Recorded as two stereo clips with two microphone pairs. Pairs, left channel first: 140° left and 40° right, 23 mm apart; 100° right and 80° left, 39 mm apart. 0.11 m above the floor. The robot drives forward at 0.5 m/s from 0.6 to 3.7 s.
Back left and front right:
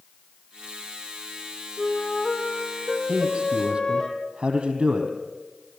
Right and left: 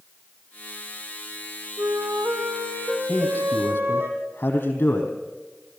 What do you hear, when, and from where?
1.8 s a flute: 95° left, 4 m; by 4.1 s 110° left, 4 m
3.1 s a man speaking: 85° right, 4.5 m; by 5.1 s 90° right, 4.5 m